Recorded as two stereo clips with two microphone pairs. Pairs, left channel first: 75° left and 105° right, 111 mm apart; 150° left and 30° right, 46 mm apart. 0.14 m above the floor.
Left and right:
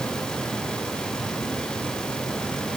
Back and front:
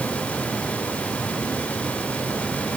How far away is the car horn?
No car horn in this recording.